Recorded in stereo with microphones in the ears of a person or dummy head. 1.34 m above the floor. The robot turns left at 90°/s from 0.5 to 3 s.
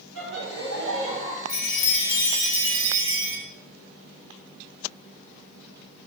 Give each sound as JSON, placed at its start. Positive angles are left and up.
{"t": 0.1, "sound": "laughter", "azimuth_deg": -105, "distance_m": 2.0}
{"t": 1.5, "sound": "a chime", "azimuth_deg": 85, "distance_m": 2.5}